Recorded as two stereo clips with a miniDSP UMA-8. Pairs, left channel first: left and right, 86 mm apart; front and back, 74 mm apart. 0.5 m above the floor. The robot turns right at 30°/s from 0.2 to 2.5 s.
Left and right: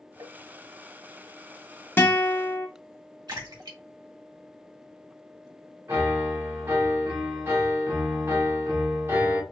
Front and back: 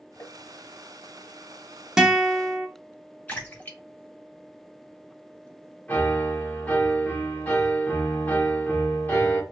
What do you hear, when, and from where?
0.2 s tapping: 50° right, 0.7 m; by 0.4 s 45° right, 0.7 m
2.0 s a guitar: 110° left, 0.7 m; by 2.7 s 130° left, 0.7 m
3.3 s a splash: 65° right, 2.0 m
5.9 s a piano: 55° right, 1.4 m